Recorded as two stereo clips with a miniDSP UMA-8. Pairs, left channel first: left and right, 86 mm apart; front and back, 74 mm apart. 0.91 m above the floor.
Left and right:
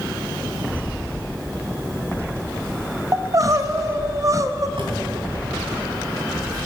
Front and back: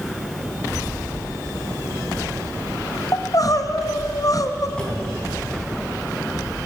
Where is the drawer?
75° right, 3 m.